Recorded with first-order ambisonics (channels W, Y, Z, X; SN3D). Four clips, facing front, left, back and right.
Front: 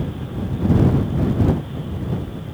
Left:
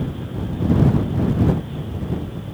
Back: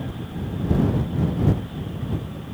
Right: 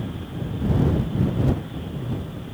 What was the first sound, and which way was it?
Only background noise.